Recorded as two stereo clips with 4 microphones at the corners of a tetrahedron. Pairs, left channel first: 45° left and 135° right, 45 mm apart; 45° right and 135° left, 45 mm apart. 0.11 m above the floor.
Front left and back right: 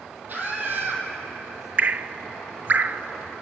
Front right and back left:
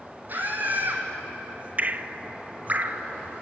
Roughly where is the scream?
Behind.